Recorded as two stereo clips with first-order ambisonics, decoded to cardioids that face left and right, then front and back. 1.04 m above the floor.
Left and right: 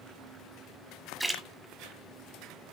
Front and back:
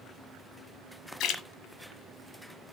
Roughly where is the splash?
Ahead.